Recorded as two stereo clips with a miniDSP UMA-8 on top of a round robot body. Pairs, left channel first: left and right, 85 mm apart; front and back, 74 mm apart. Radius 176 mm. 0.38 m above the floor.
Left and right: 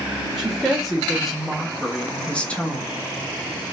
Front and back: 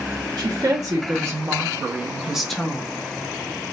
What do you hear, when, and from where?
0.4 s a woman speaking: 175° right, 2.5 m; by 2.9 s 45° left, 1.4 m